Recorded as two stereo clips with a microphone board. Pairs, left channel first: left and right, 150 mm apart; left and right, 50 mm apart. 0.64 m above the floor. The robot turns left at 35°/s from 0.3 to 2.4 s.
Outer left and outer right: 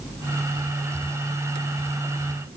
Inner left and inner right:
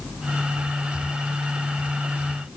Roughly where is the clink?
No clink in this recording.